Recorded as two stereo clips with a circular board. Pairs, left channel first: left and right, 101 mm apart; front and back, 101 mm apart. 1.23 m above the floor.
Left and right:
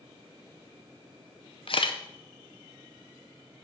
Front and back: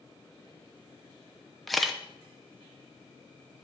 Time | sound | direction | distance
1.7 | a camera shutter | 90° left | 0.7 m